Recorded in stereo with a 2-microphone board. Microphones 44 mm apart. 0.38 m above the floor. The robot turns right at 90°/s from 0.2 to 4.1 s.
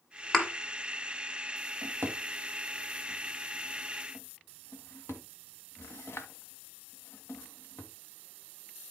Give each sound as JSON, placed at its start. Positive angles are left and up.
{"t": 0.3, "sound": "a thud", "side_deg": 10, "distance_m": 1.7}
{"t": 1.8, "sound": "a drawer", "side_deg": -70, "distance_m": 1.4}